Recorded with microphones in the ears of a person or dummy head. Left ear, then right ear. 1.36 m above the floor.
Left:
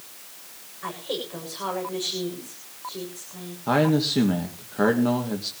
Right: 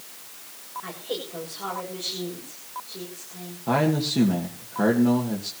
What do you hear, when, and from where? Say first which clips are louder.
0.8 s a woman speaking: left 3 dB; 35° left (ahead or behind), 6.5 m
3.7 s a man speaking: left 2 dB; 25° left (ahead or behind), 2.0 m